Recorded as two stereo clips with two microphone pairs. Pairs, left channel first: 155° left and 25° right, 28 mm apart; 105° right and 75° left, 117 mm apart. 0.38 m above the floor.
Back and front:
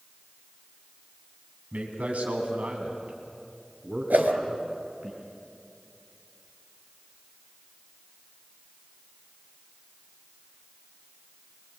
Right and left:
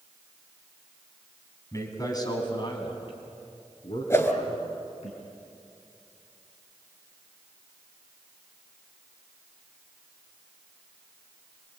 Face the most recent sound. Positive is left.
turn(degrees=-40)